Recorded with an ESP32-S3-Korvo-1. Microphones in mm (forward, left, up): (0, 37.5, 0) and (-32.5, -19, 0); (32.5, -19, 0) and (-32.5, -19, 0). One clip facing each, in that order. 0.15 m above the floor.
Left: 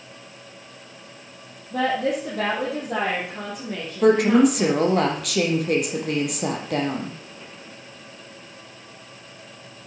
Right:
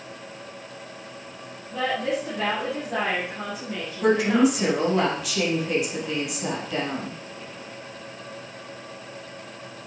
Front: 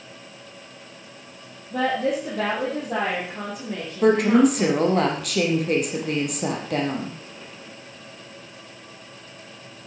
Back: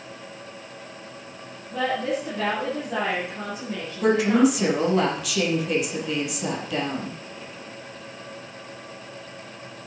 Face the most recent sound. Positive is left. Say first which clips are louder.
# left 4 dB, front 2 dB
turn(degrees=35)